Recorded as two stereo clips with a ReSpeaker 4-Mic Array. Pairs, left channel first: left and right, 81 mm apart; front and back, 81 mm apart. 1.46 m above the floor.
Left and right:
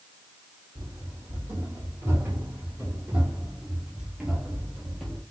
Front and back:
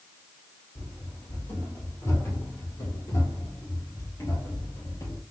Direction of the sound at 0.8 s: 55° right.